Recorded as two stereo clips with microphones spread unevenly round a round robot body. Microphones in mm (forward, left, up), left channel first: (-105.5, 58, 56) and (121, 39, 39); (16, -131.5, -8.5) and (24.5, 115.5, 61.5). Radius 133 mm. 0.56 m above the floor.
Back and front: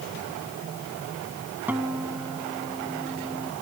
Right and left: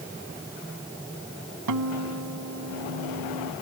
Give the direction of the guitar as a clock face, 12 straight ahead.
9 o'clock.